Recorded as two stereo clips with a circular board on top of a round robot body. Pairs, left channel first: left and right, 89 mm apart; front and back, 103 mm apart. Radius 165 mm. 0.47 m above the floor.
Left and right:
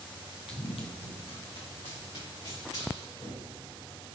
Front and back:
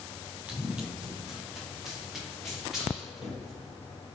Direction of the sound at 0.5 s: 105° left.